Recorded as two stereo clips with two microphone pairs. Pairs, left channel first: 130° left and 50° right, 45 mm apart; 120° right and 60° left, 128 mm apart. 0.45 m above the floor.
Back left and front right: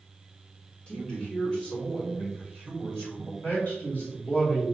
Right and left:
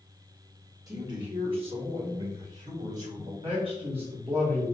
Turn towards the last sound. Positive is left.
turn(degrees=90)